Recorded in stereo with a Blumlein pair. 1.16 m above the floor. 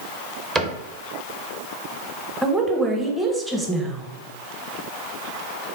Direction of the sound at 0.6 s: 15° right.